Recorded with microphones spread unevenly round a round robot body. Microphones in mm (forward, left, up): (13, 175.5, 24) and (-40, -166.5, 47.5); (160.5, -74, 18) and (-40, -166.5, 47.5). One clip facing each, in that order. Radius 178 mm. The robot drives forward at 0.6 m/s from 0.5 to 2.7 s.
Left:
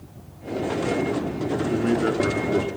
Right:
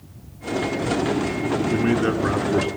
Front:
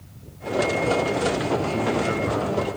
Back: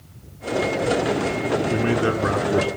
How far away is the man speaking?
About 5.5 m.